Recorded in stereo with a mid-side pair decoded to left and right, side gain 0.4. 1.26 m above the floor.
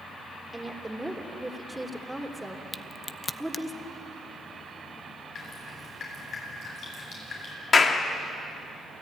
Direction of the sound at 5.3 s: 60° left.